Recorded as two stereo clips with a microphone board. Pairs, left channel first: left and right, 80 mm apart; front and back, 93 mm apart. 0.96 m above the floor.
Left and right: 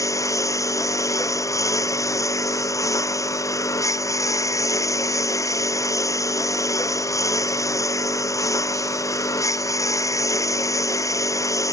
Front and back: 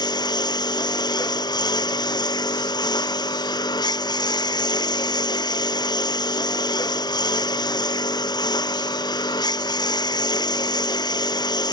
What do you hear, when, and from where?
0.0 s a lawn mower: 40° left